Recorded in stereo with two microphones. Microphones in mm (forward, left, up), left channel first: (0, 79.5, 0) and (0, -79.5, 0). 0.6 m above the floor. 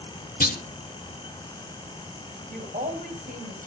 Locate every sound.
0.4 s a clunk: 65° left (ahead or behind), 1.0 m
2.5 s a woman speaking: 70° right (ahead or behind), 3.5 m